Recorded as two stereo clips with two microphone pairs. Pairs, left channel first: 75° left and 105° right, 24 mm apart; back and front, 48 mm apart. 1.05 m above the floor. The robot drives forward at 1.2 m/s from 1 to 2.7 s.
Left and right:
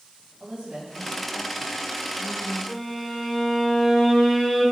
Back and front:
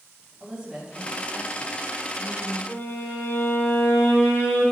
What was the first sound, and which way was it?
A woman speaking, 75° right.